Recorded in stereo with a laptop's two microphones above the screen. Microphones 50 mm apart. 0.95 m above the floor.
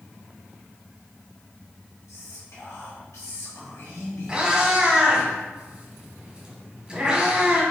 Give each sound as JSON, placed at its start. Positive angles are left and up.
{"t": 2.1, "sound": "whispering", "side_deg": 75, "distance_m": 1.4}
{"t": 4.3, "sound": "a cat meowing", "side_deg": -20, "distance_m": 1.2}